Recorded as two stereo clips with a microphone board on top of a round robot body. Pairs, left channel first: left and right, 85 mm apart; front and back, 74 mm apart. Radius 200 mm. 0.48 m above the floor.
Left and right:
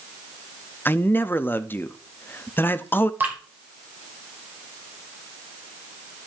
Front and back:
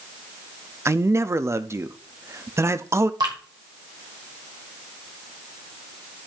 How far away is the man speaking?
About 0.8 m.